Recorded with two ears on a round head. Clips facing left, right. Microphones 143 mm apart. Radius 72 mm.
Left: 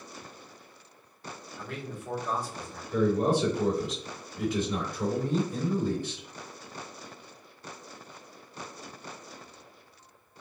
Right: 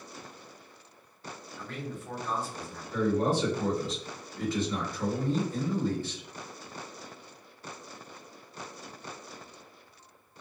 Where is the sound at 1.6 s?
10° left (ahead or behind), 0.9 m.